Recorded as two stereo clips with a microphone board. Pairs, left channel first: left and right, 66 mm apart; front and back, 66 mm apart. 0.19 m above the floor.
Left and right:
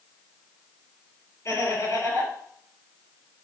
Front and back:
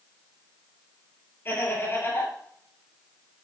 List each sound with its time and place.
1.4 s laughter: 50° left, 4 m